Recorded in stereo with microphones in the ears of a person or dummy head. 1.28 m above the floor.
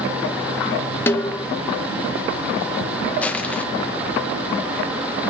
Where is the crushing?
5° left (ahead or behind), 0.7 m.